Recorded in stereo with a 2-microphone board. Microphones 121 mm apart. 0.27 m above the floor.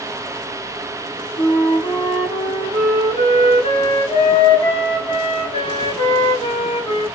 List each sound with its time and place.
1.4 s a flute: 50° left (ahead or behind), 0.9 m